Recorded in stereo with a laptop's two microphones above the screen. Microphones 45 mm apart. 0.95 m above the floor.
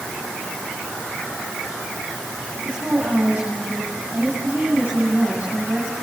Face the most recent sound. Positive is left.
turn(degrees=-35)  # may be behind; listen again after turning